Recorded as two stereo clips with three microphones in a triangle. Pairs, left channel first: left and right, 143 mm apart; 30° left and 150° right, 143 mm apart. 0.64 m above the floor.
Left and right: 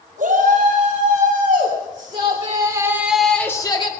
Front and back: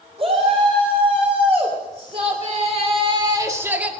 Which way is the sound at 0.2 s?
105° right.